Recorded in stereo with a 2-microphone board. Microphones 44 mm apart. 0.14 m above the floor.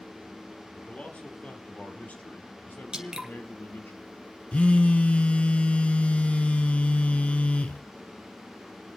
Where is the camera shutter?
I don't hear a camera shutter.